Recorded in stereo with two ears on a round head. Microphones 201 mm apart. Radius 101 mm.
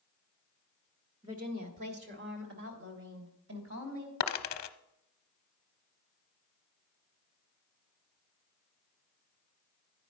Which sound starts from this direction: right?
A woman speaking, at 1.2 s.